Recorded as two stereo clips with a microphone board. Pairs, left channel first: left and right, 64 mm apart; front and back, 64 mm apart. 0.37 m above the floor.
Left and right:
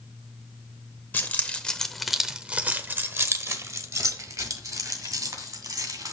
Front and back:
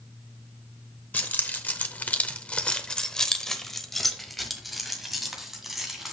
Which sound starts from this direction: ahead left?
Keys jangling, at 1.1 s.